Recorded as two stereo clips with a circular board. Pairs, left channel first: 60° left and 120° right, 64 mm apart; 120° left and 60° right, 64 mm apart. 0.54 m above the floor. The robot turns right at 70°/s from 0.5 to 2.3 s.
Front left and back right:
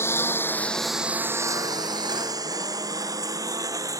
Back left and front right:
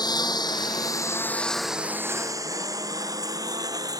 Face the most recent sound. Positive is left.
turn(degrees=-85)